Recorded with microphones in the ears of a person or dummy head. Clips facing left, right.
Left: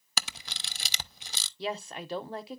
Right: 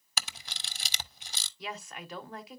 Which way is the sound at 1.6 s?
25° left (ahead or behind).